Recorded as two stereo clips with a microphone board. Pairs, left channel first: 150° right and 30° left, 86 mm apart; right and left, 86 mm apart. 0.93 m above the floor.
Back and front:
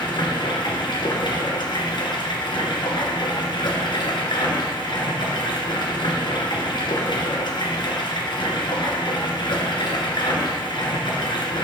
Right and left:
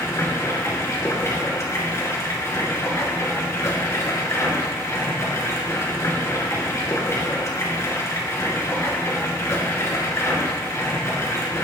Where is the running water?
140° right, 2 m.